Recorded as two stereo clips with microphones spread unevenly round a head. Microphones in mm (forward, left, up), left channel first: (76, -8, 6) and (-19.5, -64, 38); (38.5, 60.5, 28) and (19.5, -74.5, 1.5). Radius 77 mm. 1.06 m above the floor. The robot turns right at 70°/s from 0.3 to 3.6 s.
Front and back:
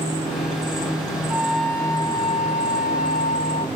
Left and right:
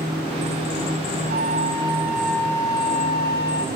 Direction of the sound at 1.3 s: 80° right.